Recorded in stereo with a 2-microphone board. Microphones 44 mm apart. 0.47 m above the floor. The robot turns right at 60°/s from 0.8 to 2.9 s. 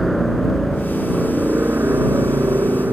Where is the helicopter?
175° left; by 2.9 s 60° right.